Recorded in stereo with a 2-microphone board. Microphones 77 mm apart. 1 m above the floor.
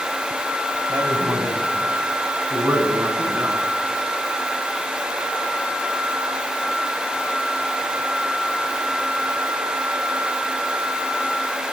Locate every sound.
0.9 s a woman speaking: 45° right (ahead or behind), 7.5 m; by 3.7 s 35° right (ahead or behind), 11 m